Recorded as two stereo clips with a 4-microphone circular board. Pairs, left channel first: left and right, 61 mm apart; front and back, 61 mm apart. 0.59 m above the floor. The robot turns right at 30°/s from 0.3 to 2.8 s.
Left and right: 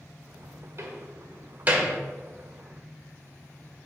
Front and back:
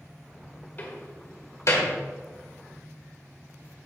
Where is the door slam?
60° right, 1.3 m; by 1.9 s 25° right, 1.3 m.